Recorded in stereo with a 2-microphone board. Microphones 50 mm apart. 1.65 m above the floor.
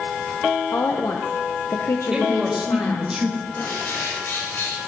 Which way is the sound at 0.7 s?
75° left (ahead or behind).